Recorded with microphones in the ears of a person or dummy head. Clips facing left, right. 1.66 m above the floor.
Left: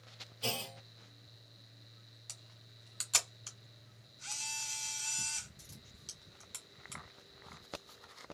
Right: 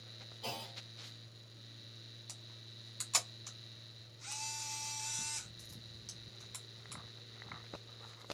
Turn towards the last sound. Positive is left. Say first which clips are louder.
# right 4 dB
turn(degrees=5)  # may be behind; listen again after turning